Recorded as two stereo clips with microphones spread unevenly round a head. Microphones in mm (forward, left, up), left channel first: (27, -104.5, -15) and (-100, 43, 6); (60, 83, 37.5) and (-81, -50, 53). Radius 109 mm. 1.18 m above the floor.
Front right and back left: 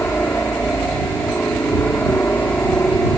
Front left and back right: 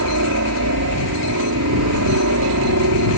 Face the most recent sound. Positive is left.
turn(degrees=-130)